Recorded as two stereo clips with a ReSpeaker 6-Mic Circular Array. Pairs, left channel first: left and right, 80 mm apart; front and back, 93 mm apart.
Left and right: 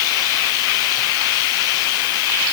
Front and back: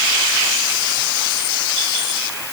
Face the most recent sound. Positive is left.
No sound to turn to.